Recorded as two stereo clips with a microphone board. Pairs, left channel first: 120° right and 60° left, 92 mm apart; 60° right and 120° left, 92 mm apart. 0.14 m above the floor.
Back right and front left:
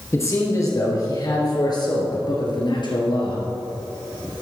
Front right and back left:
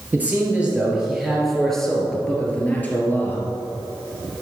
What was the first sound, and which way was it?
A man speaking, 170° right.